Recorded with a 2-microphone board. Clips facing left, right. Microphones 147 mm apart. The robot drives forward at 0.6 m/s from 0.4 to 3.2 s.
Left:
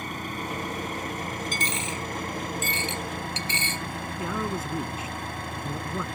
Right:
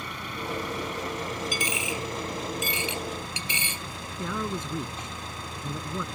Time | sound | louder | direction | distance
0.0 | an engine running | left 2 dB | 50° left (ahead or behind) | ?
1.5 | a dropped coin | right 1 dB | 10° right (ahead or behind) | ?
4.2 | a man speaking | left 1 dB | 5° left (ahead or behind) | ?